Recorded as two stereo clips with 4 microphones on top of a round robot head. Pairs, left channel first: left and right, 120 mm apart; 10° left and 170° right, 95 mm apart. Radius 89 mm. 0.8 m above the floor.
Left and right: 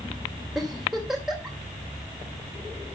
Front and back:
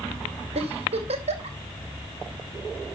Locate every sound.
0.6 s a giggle: 175° right, 3 m